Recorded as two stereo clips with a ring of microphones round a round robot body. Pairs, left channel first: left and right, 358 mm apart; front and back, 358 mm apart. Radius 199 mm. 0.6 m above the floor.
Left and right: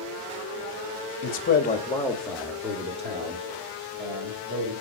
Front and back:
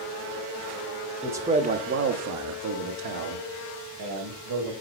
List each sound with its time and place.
1.2 s a man speaking: 95° left, 0.9 m; by 4.7 s 150° right, 2.5 m